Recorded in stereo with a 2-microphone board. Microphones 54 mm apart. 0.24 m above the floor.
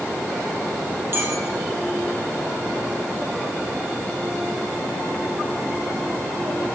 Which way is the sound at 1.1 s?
50° right (ahead or behind).